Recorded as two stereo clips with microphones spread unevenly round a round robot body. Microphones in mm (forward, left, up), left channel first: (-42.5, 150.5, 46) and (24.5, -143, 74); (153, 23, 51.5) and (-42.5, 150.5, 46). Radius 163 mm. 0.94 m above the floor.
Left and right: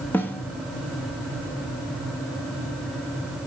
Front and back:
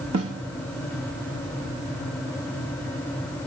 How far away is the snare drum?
About 1.0 m.